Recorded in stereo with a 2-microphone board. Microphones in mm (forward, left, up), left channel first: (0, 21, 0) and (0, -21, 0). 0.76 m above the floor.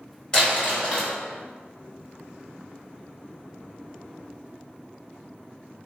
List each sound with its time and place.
0.3 s crumpling: 20° left (ahead or behind), 1.5 m